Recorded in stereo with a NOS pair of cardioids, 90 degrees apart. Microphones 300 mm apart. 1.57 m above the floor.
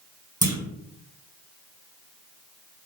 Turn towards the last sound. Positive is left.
turn(degrees=-15)